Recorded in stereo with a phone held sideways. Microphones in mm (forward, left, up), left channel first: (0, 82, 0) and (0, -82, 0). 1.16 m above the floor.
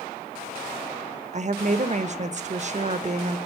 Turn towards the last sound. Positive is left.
turn(degrees=-45)  # may be behind; listen again after turning